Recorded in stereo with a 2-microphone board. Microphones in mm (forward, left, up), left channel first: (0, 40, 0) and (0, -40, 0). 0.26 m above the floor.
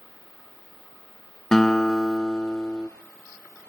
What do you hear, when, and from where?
1.5 s a guitar: 10° left (ahead or behind), 0.6 m